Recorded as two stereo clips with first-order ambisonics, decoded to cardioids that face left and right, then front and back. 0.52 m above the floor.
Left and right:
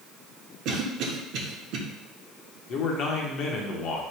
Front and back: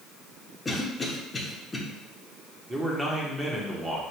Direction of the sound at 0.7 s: 80° right.